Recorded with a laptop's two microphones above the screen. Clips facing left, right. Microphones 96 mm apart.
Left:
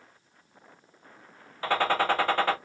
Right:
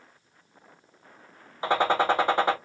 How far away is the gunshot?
About 1.3 m.